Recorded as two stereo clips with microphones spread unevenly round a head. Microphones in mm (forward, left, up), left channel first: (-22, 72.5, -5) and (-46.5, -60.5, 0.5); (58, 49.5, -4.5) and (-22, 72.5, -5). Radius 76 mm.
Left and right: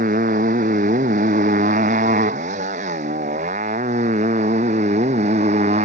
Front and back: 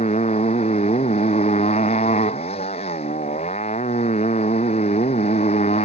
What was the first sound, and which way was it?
A motorcycle, 55° right.